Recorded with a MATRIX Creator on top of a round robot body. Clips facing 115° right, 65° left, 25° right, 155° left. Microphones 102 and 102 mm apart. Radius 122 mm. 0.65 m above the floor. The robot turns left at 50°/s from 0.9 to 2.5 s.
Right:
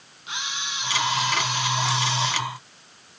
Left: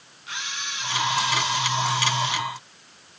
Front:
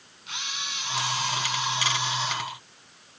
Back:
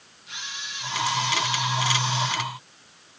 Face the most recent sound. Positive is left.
turn(degrees=-125)